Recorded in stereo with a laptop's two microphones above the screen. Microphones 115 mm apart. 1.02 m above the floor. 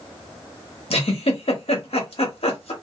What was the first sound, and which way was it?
A giggle, 55° left (ahead or behind).